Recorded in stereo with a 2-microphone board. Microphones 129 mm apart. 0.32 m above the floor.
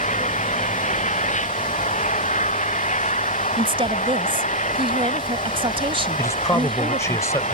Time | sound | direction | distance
0.0 | an engine running | 70° left (ahead or behind) | ?
3.6 | a woman speaking | 45° right (ahead or behind) | ?
6.2 | a man speaking | 25° left (ahead or behind) | ?